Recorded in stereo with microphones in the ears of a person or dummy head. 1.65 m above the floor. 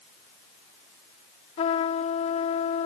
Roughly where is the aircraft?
No aircraft in this recording.